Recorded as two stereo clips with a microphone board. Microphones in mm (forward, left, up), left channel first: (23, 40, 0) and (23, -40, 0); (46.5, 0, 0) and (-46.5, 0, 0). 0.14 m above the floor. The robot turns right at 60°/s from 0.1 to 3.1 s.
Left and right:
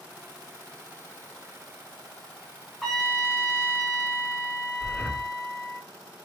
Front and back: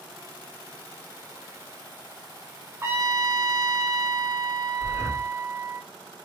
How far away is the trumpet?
About 0.8 m.